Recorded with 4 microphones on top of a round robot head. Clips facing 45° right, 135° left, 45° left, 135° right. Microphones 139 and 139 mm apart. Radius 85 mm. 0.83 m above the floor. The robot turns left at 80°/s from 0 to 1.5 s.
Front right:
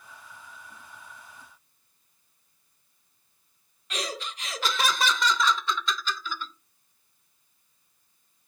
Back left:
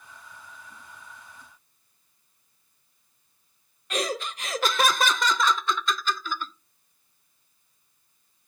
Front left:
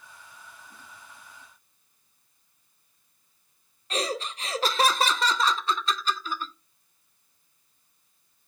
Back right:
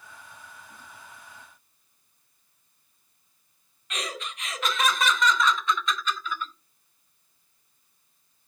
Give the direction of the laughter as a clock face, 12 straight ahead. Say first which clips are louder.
Back left 6 dB, front left 6 dB; 9 o'clock.